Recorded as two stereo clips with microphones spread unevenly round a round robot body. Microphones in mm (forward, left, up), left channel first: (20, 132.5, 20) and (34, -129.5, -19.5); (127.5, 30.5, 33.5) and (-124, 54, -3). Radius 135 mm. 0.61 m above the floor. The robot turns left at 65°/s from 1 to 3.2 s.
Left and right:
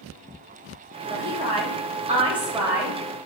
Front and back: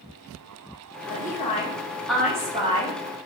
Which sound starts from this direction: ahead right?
A woman speaking, at 1.1 s.